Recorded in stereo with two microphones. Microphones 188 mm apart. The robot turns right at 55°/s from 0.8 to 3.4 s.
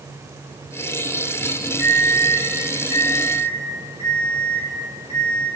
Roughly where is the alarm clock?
Ahead left.